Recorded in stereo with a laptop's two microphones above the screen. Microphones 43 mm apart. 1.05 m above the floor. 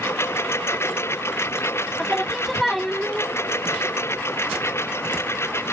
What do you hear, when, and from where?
0.0 s a lawn mower: 75° left (ahead or behind)
2.0 s singing: centre (ahead or behind)